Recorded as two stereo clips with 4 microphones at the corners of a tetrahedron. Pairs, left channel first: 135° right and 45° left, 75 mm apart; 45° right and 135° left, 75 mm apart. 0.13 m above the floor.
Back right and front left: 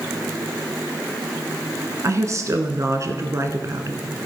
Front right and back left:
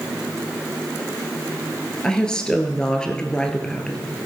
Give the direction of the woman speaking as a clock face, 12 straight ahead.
11 o'clock.